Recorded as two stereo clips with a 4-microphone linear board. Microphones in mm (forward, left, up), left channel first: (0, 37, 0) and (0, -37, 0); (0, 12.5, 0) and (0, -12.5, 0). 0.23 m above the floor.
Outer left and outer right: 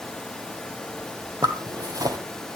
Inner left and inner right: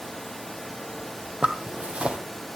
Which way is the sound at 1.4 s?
55° right (ahead or behind).